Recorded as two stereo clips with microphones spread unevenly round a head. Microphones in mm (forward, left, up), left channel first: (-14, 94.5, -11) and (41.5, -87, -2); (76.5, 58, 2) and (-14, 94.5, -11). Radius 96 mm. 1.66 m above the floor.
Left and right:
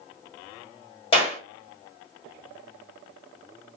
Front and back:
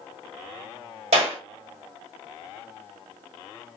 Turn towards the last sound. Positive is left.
turn(degrees=170)